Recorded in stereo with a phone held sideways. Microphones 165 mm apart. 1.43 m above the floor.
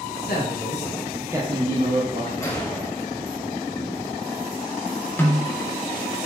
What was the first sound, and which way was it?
A man speaking, 70° left (ahead or behind).